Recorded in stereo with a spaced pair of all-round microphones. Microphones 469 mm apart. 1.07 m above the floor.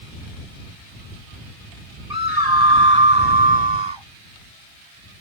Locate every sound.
2.1 s a scream: 50° right (ahead or behind); by 4.1 s 65° right (ahead or behind)